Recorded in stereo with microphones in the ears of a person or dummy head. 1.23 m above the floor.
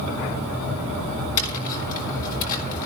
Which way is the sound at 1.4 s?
45° left (ahead or behind).